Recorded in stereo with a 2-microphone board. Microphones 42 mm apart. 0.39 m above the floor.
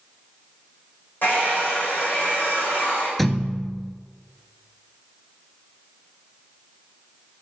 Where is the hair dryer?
50° left (ahead or behind), 4 m.